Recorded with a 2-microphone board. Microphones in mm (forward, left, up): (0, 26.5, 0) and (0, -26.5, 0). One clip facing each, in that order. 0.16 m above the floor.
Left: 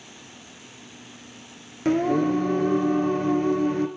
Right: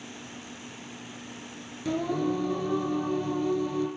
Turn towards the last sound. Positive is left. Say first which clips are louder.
# left 7 dB
turn(degrees=60)  # may be behind; listen again after turning